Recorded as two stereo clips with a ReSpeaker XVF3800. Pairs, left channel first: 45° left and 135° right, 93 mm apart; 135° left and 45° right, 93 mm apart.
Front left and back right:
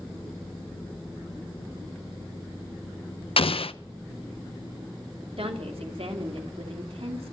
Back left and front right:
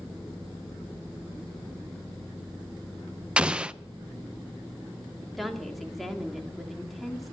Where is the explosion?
35° left, 0.5 m.